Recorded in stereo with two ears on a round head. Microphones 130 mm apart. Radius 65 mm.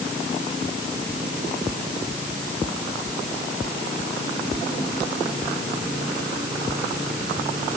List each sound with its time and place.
Only background noise.